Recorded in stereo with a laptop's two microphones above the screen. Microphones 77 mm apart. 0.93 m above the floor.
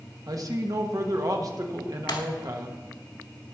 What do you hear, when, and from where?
0.3 s a man speaking: 50° right (ahead or behind), 1.2 m
2.1 s breaking glass: 85° left, 1.5 m